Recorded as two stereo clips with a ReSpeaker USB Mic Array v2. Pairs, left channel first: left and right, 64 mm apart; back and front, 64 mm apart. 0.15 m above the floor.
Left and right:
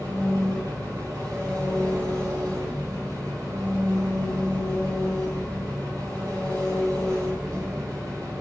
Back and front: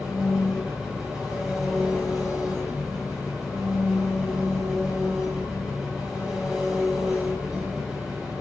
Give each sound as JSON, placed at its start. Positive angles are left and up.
{"t": 0.0, "sound": "an engine running", "azimuth_deg": -80, "distance_m": 3.0}